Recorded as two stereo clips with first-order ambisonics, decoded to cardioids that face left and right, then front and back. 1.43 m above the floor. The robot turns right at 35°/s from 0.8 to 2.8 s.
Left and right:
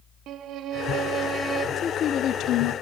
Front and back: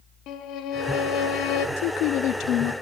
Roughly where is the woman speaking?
Ahead.